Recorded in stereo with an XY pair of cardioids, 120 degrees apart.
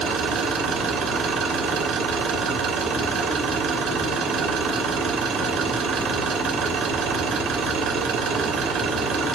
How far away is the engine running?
About 2.5 m.